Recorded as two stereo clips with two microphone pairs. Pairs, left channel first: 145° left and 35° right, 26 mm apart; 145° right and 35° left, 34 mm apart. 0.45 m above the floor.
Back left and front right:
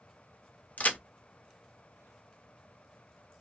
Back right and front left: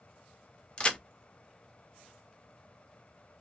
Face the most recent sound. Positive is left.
turn(degrees=155)